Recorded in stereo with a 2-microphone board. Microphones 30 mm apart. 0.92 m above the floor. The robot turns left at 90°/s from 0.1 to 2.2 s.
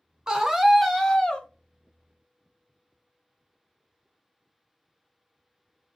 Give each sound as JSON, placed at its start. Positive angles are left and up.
{"t": 0.3, "sound": "a scream", "azimuth_deg": -130, "distance_m": 0.7}